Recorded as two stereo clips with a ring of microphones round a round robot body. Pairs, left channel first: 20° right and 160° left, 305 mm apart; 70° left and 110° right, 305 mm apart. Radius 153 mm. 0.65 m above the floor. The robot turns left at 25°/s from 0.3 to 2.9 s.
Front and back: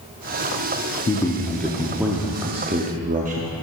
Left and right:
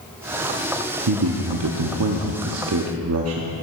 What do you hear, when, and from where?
1.1 s a man speaking: 95° right, 0.8 m; by 3.5 s 140° right, 0.8 m